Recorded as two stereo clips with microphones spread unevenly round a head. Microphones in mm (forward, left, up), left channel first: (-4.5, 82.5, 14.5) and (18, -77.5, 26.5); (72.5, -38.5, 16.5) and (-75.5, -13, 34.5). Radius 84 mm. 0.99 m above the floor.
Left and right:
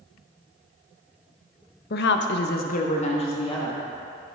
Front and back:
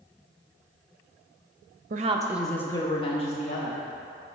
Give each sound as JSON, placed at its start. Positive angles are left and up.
{"t": 1.9, "sound": "a woman speaking", "azimuth_deg": 130, "distance_m": 0.6}